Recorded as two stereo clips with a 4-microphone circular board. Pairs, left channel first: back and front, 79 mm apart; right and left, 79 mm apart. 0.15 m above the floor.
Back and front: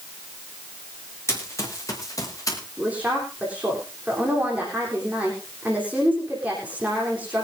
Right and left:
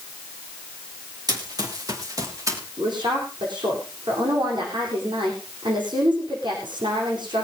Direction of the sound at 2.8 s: 75° left.